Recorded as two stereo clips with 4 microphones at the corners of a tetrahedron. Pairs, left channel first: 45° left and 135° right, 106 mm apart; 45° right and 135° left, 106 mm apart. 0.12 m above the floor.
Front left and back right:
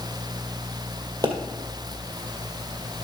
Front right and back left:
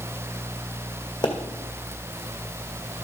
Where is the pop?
85° right, 1.9 m.